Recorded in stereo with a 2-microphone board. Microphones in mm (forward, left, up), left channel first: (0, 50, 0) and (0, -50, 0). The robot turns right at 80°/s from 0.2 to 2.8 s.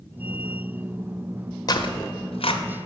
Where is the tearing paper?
40° left (ahead or behind), 1.0 m; by 2.6 s 60° left (ahead or behind), 1.0 m.